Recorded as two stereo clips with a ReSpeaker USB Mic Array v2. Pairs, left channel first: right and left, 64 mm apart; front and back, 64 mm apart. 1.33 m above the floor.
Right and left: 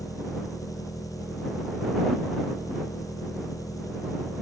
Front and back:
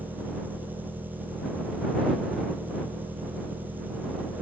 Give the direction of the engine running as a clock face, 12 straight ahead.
4 o'clock.